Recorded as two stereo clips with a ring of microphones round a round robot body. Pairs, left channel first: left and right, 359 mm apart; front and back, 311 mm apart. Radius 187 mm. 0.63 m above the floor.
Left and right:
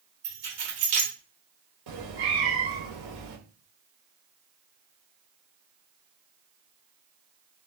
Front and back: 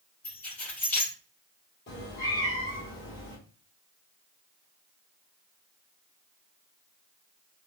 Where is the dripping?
No dripping in this recording.